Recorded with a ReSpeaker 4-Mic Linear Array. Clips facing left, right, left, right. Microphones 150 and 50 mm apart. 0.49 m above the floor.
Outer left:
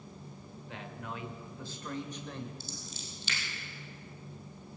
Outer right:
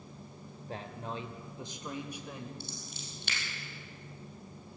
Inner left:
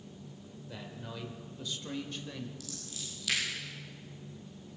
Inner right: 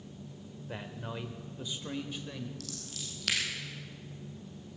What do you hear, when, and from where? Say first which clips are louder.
0.7 s a man speaking: outer right 3 dB, inner right 4 dB; 40° right (ahead or behind), 1.3 m; by 2.5 s 5° right (ahead or behind), 1.6 m
2.6 s scissors: even, inner right 1 dB; 60° right (ahead or behind), 3.5 m